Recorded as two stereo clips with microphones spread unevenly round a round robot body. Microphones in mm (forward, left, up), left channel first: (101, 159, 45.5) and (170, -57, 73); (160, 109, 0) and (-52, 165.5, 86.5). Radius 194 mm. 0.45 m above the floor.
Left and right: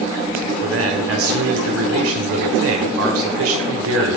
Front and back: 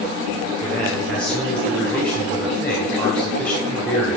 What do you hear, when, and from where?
0.6 s a man speaking: 90° right, 1.5 m